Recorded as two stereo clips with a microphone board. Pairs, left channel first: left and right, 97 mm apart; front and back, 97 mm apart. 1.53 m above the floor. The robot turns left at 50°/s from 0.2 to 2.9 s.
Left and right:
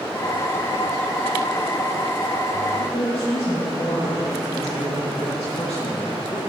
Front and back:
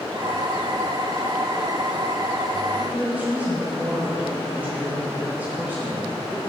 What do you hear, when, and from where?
2.8 s a woman speaking: 115° left, 2.5 m; by 6.4 s 110° left, 2.5 m